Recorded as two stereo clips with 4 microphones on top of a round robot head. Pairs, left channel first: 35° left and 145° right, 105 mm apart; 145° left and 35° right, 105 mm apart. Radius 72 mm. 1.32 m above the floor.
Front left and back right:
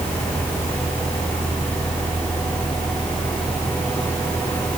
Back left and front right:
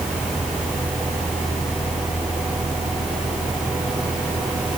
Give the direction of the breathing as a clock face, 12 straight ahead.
No breathing in this recording.